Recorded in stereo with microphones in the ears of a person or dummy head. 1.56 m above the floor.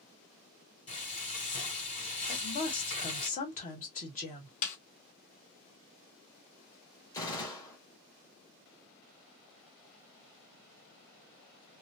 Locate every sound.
0.9 s frying: 35° left (ahead or behind), 2.5 m
2.3 s a woman speaking: 40° left (ahead or behind), 1.7 m
4.6 s a snare drum: 40° left (ahead or behind), 1.0 m
7.1 s a gunshot: 20° left (ahead or behind), 1.6 m